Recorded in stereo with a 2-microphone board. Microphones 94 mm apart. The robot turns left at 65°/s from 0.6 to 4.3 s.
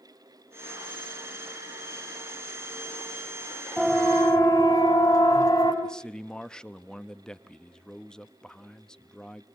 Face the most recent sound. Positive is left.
turn(degrees=10)  # may be behind; listen again after turning